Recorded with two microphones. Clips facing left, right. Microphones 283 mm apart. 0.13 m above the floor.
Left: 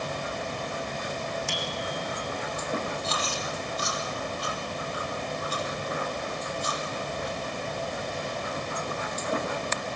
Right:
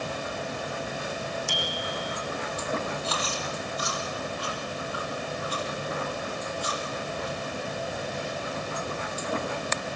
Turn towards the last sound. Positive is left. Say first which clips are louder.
# even
turn(degrees=50)  # may be behind; listen again after turning